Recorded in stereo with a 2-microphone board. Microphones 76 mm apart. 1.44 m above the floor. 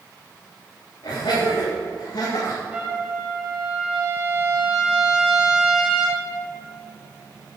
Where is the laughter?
70° left (ahead or behind), 3 m; by 2.6 s 85° left, 1.9 m.